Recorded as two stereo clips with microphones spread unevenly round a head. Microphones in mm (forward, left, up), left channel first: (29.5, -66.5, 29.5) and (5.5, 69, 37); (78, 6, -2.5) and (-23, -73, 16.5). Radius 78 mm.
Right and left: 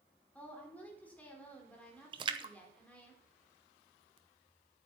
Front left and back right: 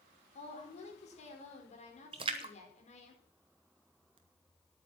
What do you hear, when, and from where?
0.3 s a woman speaking: straight ahead, 4.5 m
2.1 s a splash: 160° left, 0.8 m